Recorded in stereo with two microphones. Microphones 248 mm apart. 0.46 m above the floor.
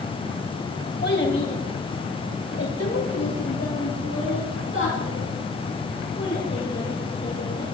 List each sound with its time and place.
1.0 s a child speaking: 45° left (ahead or behind), 2 m; by 7.6 s 40° left (ahead or behind), 5 m